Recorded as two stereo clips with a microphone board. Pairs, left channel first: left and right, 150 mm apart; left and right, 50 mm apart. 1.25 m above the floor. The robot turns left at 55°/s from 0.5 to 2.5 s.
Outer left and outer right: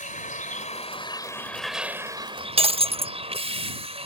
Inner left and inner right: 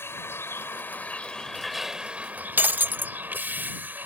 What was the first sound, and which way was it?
A vehicle, 65° left.